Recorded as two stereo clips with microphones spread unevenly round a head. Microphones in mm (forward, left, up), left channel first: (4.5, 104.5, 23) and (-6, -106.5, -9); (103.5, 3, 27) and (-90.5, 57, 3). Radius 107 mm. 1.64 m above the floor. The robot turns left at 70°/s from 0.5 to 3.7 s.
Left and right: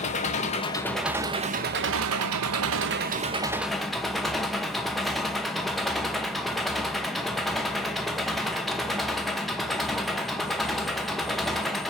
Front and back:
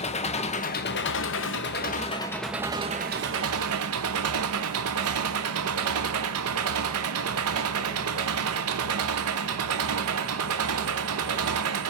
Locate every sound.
0.0 s an engine running: 35° left, 0.8 m; by 11.9 s 170° left, 0.8 m